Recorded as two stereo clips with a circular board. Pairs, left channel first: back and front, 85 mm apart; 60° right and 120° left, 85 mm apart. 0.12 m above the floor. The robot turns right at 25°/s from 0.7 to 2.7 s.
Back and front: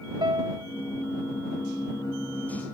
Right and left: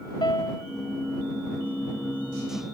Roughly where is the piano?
Ahead right.